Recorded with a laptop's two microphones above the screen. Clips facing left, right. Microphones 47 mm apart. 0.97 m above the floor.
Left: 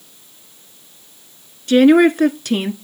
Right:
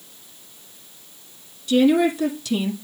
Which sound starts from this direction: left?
A woman speaking, at 1.7 s.